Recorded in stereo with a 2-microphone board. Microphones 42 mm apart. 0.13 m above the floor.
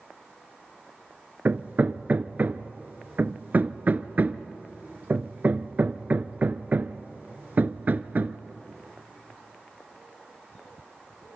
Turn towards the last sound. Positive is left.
turn(degrees=-45)  # may be behind; listen again after turning